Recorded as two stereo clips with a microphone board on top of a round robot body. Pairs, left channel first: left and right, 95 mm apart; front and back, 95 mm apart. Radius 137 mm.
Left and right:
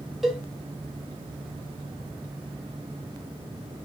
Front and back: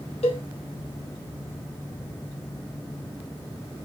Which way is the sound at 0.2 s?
5° right.